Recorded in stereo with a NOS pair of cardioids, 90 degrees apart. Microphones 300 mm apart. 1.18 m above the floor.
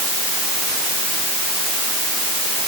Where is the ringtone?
No ringtone in this recording.